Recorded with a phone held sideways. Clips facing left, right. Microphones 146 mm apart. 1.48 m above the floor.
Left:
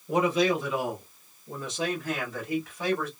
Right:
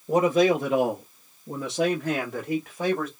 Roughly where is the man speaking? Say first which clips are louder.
Right 4 dB; right.